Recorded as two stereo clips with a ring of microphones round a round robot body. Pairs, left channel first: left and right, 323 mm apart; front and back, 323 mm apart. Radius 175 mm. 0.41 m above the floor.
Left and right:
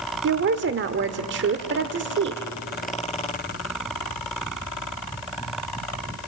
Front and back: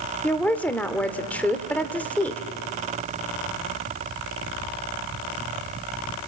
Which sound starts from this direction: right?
A woman speaking, at 0.2 s.